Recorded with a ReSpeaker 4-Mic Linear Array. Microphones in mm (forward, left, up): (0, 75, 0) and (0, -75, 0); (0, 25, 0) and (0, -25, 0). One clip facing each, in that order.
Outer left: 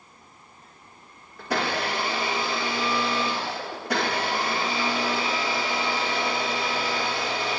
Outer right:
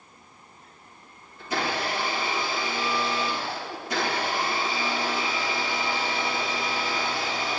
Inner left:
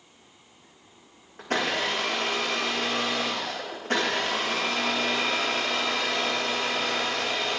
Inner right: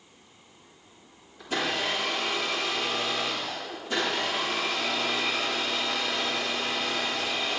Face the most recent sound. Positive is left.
turn(degrees=70)  # may be behind; listen again after turning